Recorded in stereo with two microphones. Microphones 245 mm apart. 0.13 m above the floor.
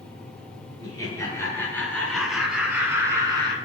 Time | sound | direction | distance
0.8 | laughter | 15° left (ahead or behind) | 2.5 m